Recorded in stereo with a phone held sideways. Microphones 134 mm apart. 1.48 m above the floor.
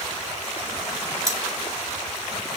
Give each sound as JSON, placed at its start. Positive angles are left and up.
{"t": 1.3, "sound": "cutlery clinking", "side_deg": -25, "distance_m": 1.3}